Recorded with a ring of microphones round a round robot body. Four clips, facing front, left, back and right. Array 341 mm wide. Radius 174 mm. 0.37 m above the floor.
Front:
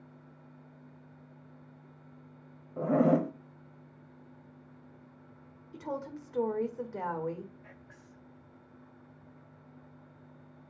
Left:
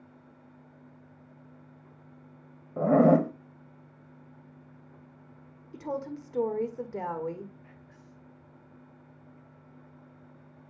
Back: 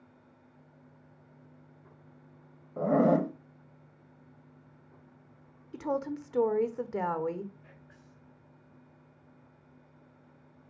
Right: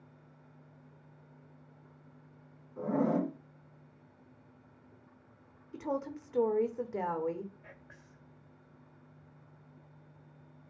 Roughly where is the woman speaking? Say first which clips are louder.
Left 1 dB, back 6 dB; behind.